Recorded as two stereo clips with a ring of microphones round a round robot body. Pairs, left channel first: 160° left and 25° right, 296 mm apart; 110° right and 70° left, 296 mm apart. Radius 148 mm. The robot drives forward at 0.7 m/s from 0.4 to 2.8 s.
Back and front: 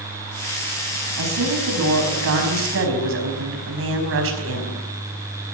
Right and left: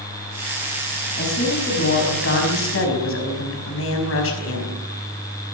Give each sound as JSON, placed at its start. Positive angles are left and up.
{"t": 1.2, "sound": "a woman speaking", "azimuth_deg": -55, "distance_m": 5.5}